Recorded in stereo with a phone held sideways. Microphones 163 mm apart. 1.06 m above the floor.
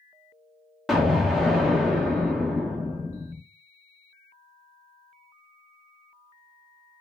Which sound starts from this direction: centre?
An explosion, at 0.9 s.